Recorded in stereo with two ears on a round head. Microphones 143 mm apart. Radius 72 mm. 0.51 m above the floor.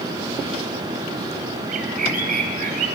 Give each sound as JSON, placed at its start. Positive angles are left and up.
{"t": 1.7, "sound": "a bird", "side_deg": -60, "distance_m": 2.5}